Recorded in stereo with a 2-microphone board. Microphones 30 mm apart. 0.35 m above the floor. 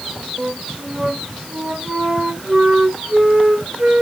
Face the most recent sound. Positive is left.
turn(degrees=-45)  # may be behind; listen again after turning